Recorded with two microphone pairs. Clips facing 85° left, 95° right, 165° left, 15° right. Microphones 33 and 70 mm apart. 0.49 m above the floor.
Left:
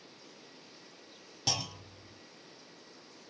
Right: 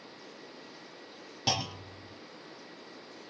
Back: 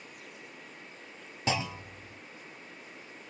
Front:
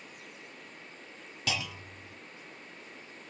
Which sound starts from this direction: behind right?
A clunk, at 1.5 s.